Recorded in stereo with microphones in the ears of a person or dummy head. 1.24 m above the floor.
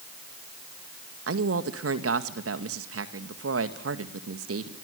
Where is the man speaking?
70° right (ahead or behind), 1.9 m.